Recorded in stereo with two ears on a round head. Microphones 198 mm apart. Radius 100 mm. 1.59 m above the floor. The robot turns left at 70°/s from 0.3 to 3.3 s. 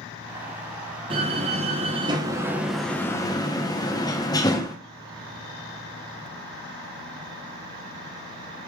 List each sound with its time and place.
1.1 s a door slam: 25° right (ahead or behind), 0.6 m; by 4.8 s 15° left (ahead or behind), 0.6 m